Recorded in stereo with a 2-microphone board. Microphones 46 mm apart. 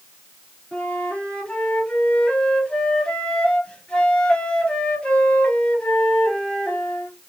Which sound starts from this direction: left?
A flute, at 0.7 s.